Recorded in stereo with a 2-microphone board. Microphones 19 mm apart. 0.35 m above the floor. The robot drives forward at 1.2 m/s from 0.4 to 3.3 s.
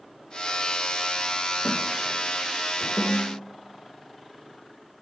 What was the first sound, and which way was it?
A snare drum, 50° left (ahead or behind).